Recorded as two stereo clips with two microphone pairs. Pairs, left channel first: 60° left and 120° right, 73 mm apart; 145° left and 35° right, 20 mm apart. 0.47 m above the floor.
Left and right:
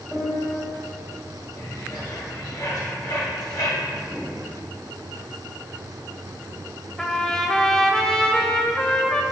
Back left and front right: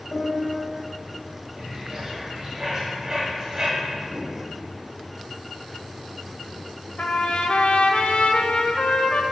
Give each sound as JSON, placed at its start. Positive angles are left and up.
{"t": 0.1, "sound": "a piano", "azimuth_deg": 160, "distance_m": 2.5}
{"t": 1.6, "sound": "a bird", "azimuth_deg": 35, "distance_m": 2.0}
{"t": 4.1, "sound": "a whoosh", "azimuth_deg": -35, "distance_m": 0.8}
{"t": 7.0, "sound": "a trumpet", "azimuth_deg": 140, "distance_m": 0.5}